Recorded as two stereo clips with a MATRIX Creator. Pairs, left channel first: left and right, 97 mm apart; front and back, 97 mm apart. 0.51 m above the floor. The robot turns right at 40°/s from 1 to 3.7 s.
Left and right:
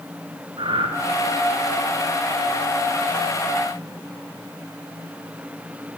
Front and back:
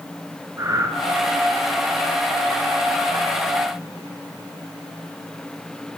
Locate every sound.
0.6 s breathing: 120° right, 3 m